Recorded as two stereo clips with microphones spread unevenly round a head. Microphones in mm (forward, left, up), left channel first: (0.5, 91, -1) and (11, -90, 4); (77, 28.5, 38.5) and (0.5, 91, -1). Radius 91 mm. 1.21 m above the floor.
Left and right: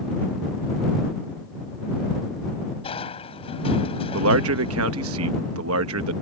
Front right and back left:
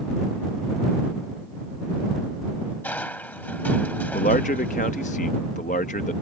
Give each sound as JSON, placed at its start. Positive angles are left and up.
{"t": 2.8, "sound": "crushing", "azimuth_deg": 30}
{"t": 4.1, "sound": "a man speaking", "azimuth_deg": -80}